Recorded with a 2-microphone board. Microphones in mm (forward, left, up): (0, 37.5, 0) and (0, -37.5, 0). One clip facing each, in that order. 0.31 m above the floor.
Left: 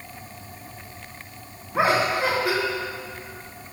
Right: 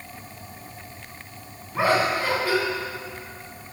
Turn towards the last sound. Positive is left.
turn(degrees=15)  # may be behind; listen again after turning